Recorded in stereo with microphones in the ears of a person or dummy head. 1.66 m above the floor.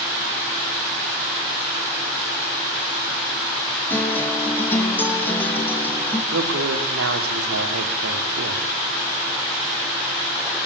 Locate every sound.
3.9 s a guitar: 10° left (ahead or behind), 3 m
6.3 s a woman speaking: 80° right, 4 m